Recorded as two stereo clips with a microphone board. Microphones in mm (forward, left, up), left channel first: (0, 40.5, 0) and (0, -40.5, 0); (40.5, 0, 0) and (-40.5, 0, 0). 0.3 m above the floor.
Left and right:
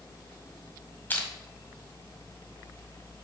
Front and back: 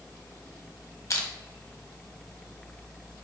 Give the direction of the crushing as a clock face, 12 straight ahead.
11 o'clock.